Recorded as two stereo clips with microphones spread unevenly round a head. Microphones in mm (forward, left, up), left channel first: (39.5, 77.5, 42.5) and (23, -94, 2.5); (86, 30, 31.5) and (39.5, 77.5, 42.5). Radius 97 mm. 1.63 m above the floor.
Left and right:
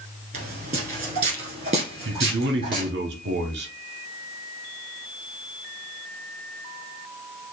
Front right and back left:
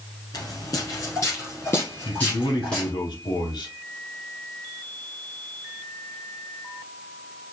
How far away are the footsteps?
About 2.0 m.